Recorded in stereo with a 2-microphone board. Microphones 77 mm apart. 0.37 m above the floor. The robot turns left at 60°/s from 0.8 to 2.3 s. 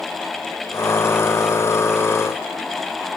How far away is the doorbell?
No doorbell in this recording.